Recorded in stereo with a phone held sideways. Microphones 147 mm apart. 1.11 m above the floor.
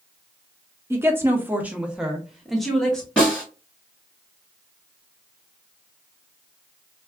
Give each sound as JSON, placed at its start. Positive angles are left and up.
{"t": 0.9, "sound": "a woman speaking", "side_deg": -15, "distance_m": 0.7}
{"t": 3.2, "sound": "a snare drum", "side_deg": 10, "distance_m": 2.0}